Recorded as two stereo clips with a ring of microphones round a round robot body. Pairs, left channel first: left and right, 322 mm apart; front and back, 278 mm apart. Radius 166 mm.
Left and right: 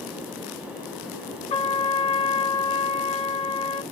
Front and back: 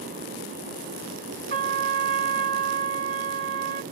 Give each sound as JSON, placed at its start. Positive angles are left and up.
{"t": 1.5, "sound": "a trumpet", "azimuth_deg": 150, "distance_m": 1.6}